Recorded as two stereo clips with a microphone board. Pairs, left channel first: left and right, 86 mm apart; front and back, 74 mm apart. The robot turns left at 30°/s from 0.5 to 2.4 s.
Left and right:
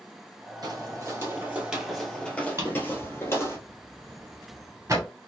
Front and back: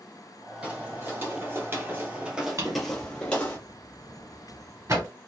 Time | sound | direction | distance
0.6 | footsteps | 110° right | 1.6 m
2.6 | a drawer | 140° right | 1.5 m